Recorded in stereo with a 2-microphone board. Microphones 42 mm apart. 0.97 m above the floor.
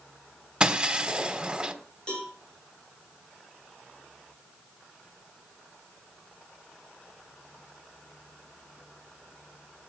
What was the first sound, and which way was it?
Breaking glass, 20° right (ahead or behind).